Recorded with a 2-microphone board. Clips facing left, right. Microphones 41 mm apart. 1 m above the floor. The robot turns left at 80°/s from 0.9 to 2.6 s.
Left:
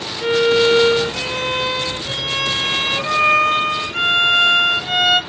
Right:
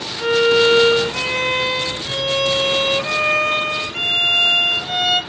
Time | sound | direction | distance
0.2 | a violin | 105° right | 2 m